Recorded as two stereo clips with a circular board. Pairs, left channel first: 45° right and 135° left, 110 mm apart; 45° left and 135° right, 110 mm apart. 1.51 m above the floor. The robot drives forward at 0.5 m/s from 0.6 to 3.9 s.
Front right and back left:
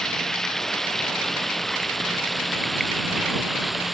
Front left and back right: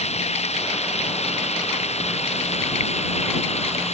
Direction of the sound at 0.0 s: 40° left.